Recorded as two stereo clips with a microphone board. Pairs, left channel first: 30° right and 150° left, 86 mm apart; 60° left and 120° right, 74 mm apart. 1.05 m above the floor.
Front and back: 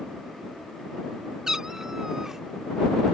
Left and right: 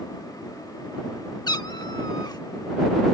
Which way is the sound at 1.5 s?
65° left.